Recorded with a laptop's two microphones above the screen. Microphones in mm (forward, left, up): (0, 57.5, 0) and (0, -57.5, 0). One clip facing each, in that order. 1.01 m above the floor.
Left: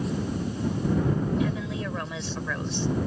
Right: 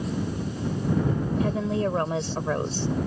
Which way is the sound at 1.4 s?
40° right (ahead or behind).